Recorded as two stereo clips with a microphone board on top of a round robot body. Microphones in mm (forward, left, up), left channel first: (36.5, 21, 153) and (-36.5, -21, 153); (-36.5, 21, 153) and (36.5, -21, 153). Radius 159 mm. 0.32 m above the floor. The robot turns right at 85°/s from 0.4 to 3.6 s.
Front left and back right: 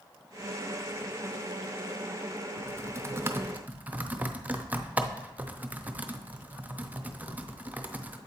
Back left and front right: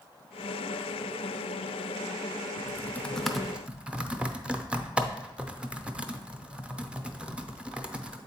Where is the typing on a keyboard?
175° left, 0.7 m; by 8.2 s 95° right, 0.7 m.